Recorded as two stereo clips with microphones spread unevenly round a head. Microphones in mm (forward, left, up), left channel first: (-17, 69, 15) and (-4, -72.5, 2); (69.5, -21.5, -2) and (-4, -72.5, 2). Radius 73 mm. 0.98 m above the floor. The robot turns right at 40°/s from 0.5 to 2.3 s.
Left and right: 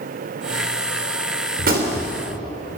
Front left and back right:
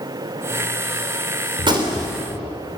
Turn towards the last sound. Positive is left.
turn(degrees=-85)